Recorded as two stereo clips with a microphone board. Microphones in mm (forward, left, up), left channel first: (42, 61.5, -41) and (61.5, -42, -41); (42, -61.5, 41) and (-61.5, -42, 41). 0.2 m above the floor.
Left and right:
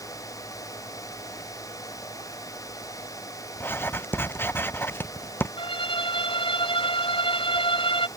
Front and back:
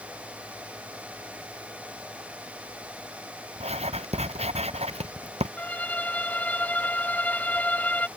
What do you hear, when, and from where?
3.6 s writing: 170° left
5.6 s a violin: 65° left